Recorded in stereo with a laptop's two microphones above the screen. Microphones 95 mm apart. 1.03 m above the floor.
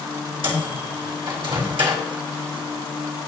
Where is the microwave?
70° right (ahead or behind), 3.5 m.